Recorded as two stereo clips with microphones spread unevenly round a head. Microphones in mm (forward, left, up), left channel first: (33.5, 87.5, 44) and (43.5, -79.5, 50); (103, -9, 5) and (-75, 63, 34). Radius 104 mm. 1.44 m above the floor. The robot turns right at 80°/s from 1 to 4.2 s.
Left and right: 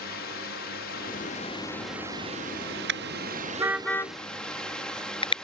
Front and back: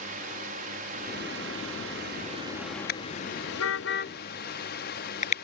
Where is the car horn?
70° right; by 5.3 s 30° left.